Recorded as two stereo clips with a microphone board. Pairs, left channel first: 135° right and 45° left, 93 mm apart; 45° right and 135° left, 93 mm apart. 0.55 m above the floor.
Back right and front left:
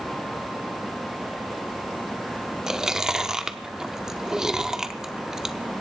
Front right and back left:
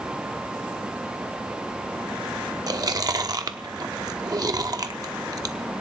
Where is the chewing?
125° left, 0.7 m.